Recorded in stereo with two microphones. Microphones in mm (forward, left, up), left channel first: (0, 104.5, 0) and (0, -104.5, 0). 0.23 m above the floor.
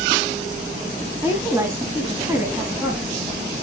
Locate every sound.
1.2 s a woman speaking: 15° right (ahead or behind), 1.8 m